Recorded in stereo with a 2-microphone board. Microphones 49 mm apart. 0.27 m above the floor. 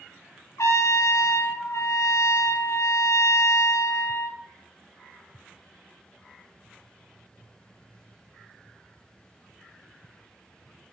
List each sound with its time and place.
0.6 s a trumpet: 80° left, 1.0 m